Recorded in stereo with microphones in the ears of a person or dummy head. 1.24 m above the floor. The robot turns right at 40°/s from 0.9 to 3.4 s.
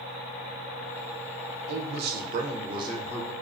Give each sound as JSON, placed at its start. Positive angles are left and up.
{"t": 1.7, "sound": "a man speaking", "azimuth_deg": -75, "distance_m": 0.6}